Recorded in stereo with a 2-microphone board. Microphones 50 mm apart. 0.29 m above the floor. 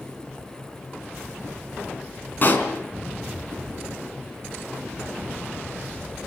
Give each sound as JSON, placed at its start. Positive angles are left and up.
{"t": 2.4, "sound": "a pop", "side_deg": 40, "distance_m": 3.5}